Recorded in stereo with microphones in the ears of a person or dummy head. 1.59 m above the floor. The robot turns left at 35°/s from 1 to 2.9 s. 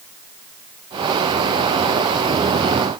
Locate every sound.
Only background noise.